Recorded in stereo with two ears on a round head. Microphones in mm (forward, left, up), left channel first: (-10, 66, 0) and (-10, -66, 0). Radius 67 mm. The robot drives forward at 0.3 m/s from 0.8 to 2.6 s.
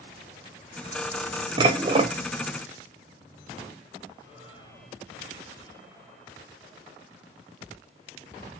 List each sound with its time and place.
1.6 s dishes clattering: 30° right (ahead or behind), 0.5 m; by 2.1 s 35° right (ahead or behind), 0.5 m